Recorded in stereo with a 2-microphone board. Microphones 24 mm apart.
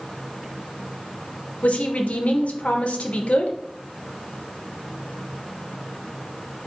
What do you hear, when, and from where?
1.6 s a woman speaking: 70° left (ahead or behind), 0.9 m